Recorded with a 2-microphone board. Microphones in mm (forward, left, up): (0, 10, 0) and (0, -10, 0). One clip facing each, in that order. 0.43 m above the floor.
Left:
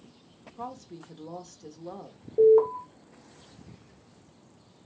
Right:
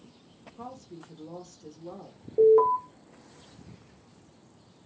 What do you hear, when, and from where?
0.6 s a woman speaking: 20° left (ahead or behind), 0.8 m
2.4 s an alarm: 15° right (ahead or behind), 1.3 m